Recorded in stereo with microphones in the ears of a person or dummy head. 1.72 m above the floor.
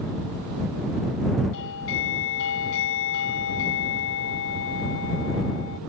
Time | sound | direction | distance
1.5 | a doorbell | 75° left (ahead or behind) | ?